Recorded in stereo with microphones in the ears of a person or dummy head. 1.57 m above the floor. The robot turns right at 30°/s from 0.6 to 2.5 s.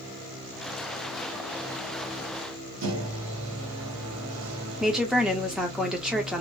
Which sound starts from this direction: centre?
A woman speaking, at 4.8 s.